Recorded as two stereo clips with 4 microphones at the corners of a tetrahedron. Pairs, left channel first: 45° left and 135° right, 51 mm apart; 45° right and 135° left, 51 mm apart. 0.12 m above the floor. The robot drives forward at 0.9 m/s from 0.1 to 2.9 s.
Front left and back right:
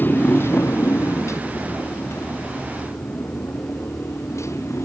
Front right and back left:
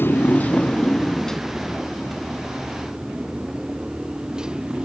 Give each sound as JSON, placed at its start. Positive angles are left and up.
{"t": 0.0, "sound": "a motorcycle", "azimuth_deg": -5}